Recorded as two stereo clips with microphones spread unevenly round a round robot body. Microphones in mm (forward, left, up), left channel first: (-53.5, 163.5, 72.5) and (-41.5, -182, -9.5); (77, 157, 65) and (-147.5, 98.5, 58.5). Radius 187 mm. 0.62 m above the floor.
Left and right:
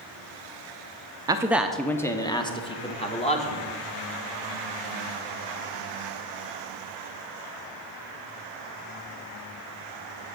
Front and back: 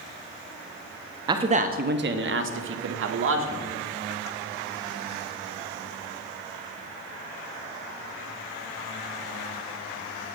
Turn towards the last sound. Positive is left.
turn(degrees=170)